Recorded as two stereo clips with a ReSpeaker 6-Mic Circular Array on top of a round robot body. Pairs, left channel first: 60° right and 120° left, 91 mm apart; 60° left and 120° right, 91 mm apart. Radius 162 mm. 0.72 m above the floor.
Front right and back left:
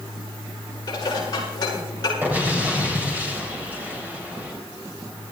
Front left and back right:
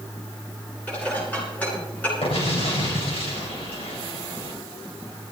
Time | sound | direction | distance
0.9 | dishes clattering | 15° right | 8 m
2.2 | an explosion | 50° left | 4 m